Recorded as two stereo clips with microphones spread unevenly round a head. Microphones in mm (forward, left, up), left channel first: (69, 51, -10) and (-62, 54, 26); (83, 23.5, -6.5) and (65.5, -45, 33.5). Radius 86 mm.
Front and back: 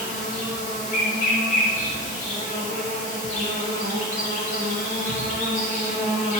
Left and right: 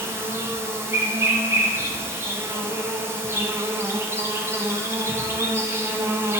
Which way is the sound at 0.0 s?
45° right.